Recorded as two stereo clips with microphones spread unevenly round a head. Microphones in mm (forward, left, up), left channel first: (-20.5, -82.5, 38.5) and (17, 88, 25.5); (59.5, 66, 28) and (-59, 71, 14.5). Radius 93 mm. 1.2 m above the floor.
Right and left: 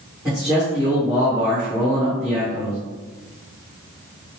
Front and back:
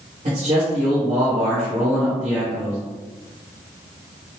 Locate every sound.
0.2 s a man speaking: 160° left, 1.9 m